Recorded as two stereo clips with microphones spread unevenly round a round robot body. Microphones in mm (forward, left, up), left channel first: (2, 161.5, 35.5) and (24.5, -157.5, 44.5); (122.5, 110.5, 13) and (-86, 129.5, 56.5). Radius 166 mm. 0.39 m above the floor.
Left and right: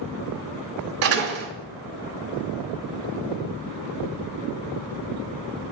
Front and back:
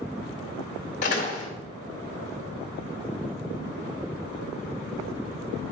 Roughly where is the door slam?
Ahead right.